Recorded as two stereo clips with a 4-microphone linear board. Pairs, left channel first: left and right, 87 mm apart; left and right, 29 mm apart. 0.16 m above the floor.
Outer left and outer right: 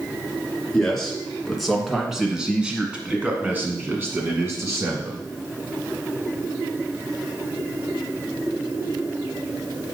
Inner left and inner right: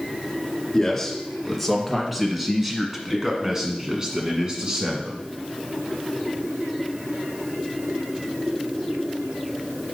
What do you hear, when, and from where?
0.7 s a man speaking: 5° left (ahead or behind), 2.5 m; by 5.3 s 40° right (ahead or behind), 1.8 m